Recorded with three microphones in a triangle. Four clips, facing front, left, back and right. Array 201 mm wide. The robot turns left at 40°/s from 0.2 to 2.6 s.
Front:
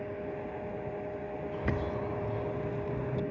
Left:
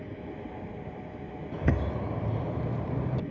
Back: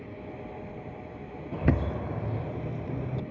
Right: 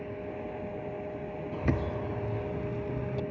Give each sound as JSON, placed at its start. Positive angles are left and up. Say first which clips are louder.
{"t": 1.5, "sound": "a bird", "louder": "left 1 dB, back 7 dB", "azimuth_deg": 160, "distance_m": 0.6}